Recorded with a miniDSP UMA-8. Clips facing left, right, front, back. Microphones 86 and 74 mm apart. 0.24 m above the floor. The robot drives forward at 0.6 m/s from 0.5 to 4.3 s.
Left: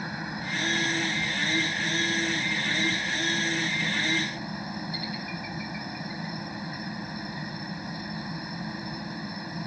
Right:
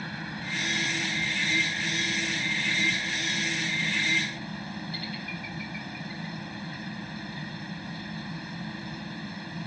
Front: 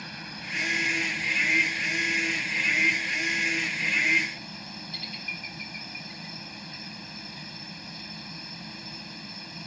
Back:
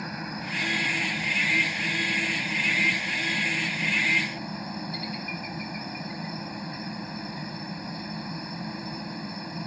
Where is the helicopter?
145° left; by 9.7 s 150° left.